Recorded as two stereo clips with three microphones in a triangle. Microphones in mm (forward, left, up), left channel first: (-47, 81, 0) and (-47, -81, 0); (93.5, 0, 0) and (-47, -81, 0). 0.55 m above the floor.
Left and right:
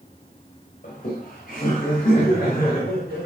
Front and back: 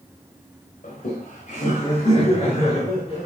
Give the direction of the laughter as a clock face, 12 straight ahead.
10 o'clock.